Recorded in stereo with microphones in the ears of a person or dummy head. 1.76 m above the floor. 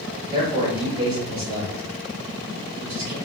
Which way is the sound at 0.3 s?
45° right (ahead or behind).